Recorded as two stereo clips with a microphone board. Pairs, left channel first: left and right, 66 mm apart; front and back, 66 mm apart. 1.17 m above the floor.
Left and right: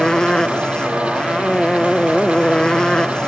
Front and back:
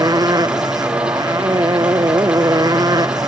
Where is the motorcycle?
170° left.